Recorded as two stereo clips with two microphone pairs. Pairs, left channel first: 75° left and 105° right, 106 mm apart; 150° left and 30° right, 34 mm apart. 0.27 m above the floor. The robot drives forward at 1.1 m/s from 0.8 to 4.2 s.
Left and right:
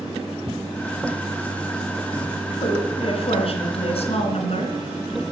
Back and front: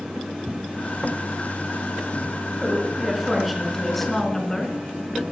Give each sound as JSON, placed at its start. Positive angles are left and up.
{"t": 2.6, "sound": "a woman speaking", "azimuth_deg": 50, "distance_m": 4.0}